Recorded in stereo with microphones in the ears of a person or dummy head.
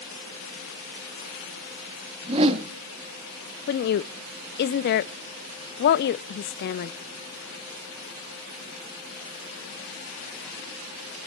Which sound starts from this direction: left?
A woman speaking, at 3.7 s.